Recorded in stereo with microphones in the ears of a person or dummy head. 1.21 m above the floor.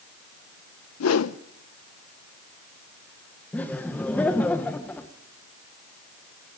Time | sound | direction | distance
1.0 | a whoosh | 75° left (ahead or behind) | 0.7 m
3.5 | laughter | 5° left (ahead or behind) | 1.0 m